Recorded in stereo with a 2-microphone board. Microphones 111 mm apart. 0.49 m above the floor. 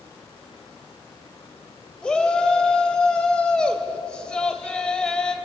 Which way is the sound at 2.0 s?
10° left (ahead or behind).